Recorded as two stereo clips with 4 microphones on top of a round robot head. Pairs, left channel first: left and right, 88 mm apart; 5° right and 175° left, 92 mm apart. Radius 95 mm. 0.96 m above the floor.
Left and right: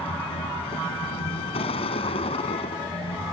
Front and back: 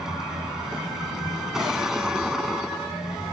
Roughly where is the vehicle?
Left.